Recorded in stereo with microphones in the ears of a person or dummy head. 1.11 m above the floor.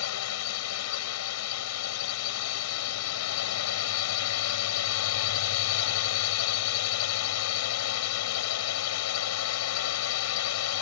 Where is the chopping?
I don't hear chopping.